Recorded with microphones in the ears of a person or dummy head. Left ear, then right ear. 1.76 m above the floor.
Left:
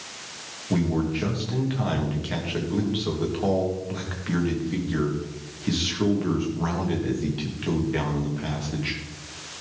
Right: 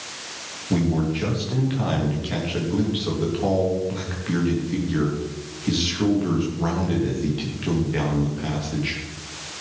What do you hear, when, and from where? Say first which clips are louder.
0.7 s a man speaking: right 2 dB; 15° left (ahead or behind), 3 m